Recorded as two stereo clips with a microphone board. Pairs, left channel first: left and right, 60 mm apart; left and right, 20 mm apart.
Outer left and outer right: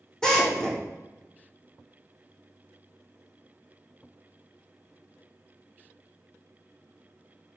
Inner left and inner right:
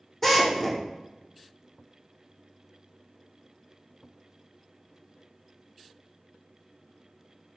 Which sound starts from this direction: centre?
A drill, at 0.2 s.